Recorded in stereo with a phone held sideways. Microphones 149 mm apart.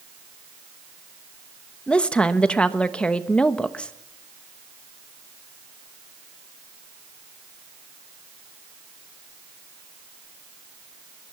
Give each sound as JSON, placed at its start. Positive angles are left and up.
{"t": 1.9, "sound": "a woman speaking", "side_deg": 5, "distance_m": 1.1}